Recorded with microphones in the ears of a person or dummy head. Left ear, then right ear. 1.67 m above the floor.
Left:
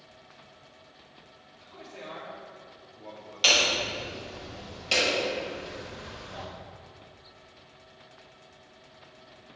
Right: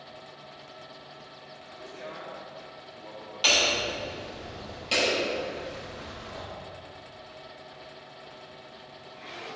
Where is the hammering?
10° left (ahead or behind), 5.5 m.